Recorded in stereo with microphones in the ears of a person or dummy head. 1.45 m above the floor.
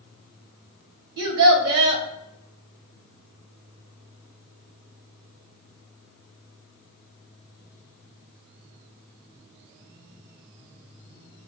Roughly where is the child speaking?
Right.